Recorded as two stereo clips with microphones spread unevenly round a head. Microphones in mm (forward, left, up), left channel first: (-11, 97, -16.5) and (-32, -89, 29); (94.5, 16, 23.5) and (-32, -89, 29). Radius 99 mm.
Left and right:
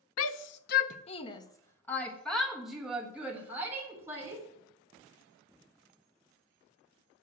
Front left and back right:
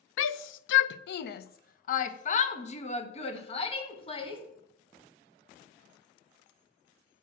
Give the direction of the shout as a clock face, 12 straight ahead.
10 o'clock.